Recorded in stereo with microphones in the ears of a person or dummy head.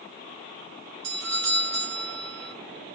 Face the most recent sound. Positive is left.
turn(degrees=-60)  # may be behind; listen again after turning